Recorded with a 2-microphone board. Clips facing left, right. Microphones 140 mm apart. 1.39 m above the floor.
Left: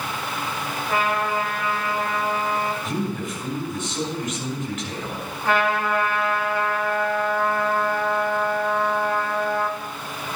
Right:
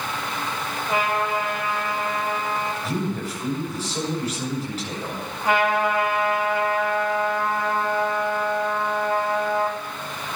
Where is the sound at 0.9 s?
20° right (ahead or behind), 4.5 m.